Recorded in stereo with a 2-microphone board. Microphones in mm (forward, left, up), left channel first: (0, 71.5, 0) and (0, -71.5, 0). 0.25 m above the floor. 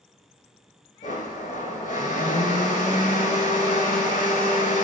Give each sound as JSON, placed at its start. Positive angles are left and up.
{"t": 1.0, "sound": "a blender", "side_deg": 70, "distance_m": 0.6}